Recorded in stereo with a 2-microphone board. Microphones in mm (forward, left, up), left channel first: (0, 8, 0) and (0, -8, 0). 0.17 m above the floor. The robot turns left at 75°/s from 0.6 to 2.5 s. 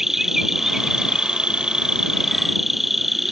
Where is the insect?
25° right; by 3.3 s 165° right.